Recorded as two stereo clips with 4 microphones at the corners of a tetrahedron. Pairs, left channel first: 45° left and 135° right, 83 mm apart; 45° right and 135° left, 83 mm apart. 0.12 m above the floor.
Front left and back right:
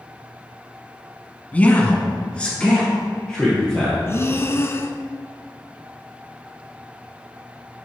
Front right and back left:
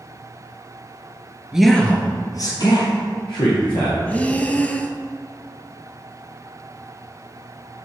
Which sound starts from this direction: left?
A man speaking, at 1.5 s.